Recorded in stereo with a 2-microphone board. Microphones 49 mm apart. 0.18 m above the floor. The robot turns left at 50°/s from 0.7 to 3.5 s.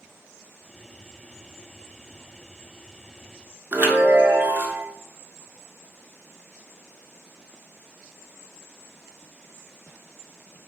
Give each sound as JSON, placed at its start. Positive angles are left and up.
{"t": 3.7, "sound": "a chime", "side_deg": -45, "distance_m": 0.6}